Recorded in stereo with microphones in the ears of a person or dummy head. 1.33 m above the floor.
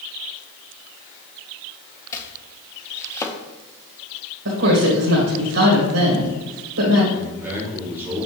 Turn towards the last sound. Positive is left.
turn(degrees=-10)  # may be behind; listen again after turning